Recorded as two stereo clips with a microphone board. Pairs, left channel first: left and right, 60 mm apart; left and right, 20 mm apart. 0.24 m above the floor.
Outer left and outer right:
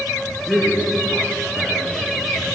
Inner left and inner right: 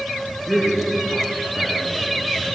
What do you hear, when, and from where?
0.5 s a man speaking: centre (ahead or behind), 4.5 m